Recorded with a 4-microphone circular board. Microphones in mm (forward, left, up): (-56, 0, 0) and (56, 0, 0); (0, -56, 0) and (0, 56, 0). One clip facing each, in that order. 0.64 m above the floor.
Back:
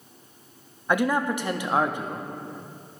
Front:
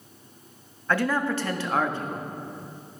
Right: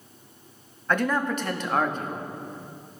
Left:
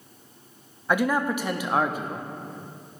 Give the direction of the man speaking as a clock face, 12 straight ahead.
7 o'clock.